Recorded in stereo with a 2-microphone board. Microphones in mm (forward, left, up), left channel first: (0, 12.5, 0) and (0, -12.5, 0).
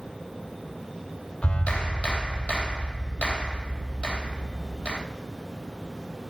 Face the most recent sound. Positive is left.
turn(degrees=60)  # may be behind; listen again after turning